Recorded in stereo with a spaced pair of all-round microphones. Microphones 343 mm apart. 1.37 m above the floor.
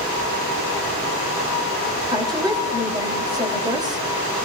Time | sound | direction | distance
2.1 | a woman speaking | 10° right (ahead or behind) | 3 m